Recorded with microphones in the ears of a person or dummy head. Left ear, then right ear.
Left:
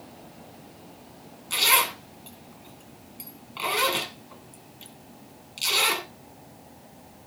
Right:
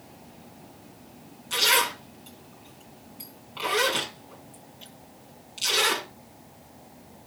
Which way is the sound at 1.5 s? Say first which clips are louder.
Even; 10° left (ahead or behind).